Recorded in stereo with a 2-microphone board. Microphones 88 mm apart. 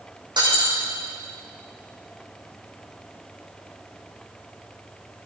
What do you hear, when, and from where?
0.4 s breaking glass: 60° right (ahead or behind), 6 m